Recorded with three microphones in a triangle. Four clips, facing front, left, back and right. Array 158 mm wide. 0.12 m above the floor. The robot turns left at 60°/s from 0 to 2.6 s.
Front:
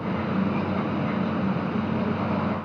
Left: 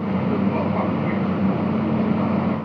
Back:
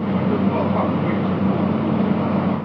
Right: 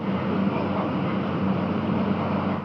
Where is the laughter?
I don't hear laughter.